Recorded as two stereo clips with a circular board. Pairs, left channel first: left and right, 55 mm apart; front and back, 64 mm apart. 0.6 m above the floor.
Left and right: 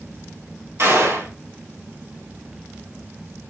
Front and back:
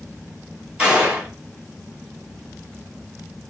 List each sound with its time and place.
0.8 s a gunshot: 100° right, 3 m